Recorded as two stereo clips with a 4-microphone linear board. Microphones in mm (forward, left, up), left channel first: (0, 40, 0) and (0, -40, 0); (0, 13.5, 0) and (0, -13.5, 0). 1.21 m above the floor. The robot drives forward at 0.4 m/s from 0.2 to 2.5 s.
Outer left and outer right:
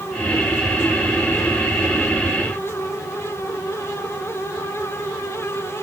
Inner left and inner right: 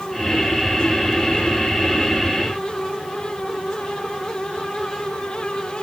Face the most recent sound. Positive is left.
No sound to turn to.